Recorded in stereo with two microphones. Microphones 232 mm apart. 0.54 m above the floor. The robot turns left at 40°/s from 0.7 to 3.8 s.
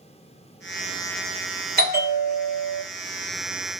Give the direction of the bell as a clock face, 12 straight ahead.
3 o'clock.